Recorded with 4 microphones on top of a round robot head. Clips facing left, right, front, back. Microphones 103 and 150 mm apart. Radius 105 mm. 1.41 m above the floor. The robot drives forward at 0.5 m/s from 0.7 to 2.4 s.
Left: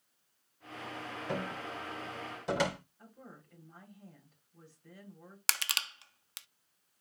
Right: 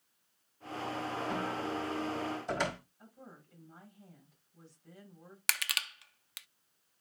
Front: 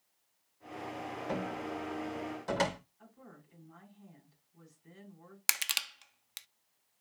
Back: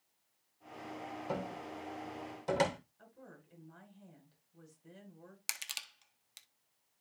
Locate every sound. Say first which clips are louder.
1.3 s a cupboard door: even, front 4 dB; 100° left, 3 m; by 2.8 s 110° left, 3 m
3.0 s a woman speaking: left 1 dB, front 1 dB; 150° left, 7.5 m
5.5 s crushing: even, front 9 dB; 30° left, 0.6 m